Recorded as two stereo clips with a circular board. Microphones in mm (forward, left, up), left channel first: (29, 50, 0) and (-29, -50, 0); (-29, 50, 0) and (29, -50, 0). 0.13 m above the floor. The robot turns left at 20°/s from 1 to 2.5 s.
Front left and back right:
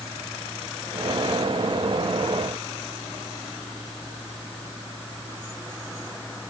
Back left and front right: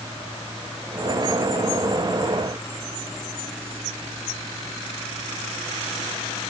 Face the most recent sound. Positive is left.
No sound to turn to.